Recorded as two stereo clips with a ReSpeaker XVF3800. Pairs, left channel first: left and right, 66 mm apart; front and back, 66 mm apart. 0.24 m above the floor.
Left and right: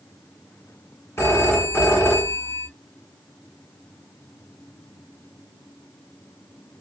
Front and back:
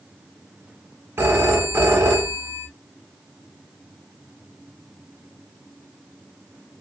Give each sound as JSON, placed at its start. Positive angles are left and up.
{"t": 1.2, "sound": "a phone ringing", "azimuth_deg": 130, "distance_m": 1.5}